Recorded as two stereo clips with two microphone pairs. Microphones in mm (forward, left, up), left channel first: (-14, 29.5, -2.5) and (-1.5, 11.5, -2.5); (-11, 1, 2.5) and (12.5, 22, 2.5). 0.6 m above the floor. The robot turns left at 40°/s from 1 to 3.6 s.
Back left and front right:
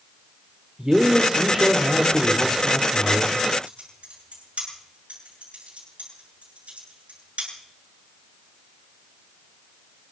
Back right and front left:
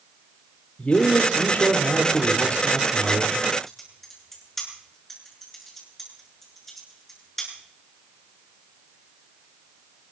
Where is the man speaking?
110° right, 2 m; by 3.4 s 155° left, 2 m.